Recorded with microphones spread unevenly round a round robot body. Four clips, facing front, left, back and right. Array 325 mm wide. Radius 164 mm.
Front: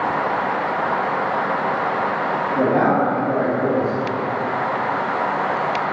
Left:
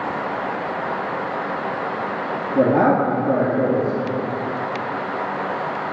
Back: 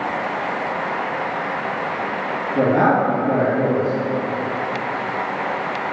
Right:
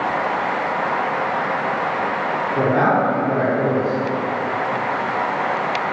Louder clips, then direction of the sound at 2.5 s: Left 2 dB, back 2 dB; 100° left.